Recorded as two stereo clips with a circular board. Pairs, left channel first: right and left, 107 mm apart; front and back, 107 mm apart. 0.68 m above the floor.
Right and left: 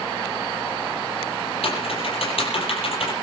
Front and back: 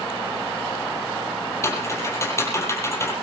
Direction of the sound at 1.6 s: 65° right.